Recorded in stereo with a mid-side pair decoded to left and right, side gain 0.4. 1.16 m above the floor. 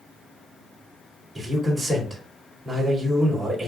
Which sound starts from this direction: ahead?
A man speaking, at 1.4 s.